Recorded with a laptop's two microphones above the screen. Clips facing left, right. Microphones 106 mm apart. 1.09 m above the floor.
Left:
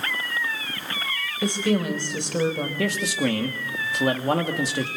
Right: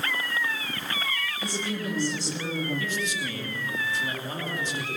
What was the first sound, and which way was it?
A woman speaking, 60° left (ahead or behind).